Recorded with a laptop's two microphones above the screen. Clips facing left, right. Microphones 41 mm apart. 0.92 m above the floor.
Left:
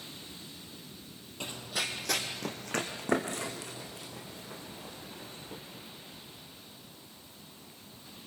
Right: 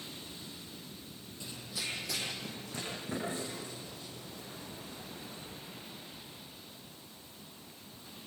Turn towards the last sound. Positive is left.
turn(degrees=80)